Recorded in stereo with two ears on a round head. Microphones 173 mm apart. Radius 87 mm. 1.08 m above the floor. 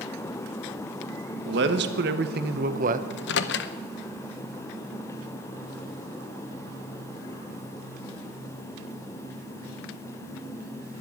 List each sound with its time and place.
1.5 s a man speaking: 60° right (ahead or behind), 1.5 m; by 3.0 s 40° right (ahead or behind), 0.8 m
3.1 s a microwave: 60° left (ahead or behind), 0.8 m